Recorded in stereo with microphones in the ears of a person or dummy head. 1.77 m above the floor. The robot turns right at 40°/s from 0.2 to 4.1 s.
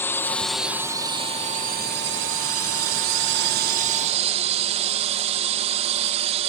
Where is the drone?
165° left; by 6.5 s 40° right.